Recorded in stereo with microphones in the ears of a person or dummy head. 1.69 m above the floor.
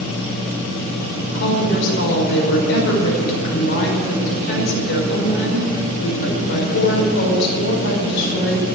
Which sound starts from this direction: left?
A woman speaking, at 1.3 s.